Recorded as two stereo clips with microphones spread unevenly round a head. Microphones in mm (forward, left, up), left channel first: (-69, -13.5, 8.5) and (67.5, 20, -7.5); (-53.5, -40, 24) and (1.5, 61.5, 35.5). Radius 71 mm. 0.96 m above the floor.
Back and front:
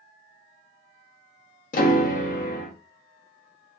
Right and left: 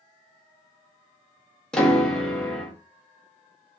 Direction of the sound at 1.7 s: 160° left.